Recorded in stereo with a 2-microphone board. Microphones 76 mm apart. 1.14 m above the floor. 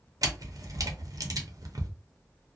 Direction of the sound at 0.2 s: 50° right (ahead or behind).